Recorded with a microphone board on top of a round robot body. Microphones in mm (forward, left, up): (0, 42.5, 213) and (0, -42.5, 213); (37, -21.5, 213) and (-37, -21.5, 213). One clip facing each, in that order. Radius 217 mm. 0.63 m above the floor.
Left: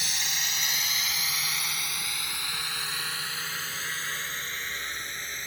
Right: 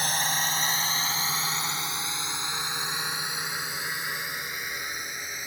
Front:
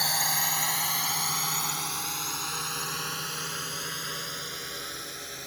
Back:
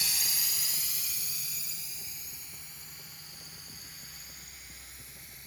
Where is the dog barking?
I don't hear a dog barking.